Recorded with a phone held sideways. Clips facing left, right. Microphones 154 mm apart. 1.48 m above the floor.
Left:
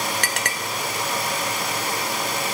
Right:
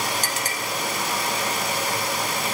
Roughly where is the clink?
Left.